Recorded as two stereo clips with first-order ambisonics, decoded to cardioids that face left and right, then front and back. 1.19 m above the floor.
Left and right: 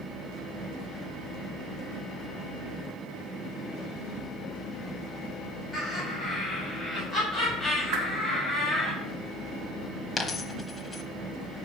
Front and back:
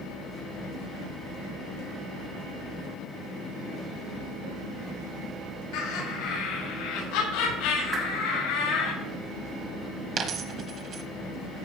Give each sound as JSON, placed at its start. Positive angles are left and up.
{"t": 5.7, "sound": "laughter", "azimuth_deg": 5, "distance_m": 4.5}
{"t": 7.9, "sound": "a whoosh", "azimuth_deg": -105, "distance_m": 2.5}
{"t": 10.2, "sound": "a dropped coin", "azimuth_deg": 155, "distance_m": 1.1}